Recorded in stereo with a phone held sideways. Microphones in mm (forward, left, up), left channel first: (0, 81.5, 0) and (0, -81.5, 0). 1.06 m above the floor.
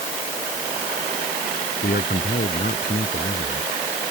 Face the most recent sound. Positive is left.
turn(degrees=70)  # may be behind; listen again after turning